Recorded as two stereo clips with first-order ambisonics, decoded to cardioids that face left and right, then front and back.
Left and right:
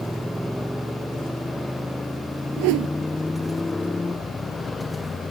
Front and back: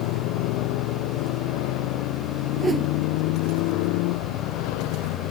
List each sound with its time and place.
0.0 s a motorcycle: straight ahead; by 5.3 s 15° left
2.6 s a whoosh: 100° right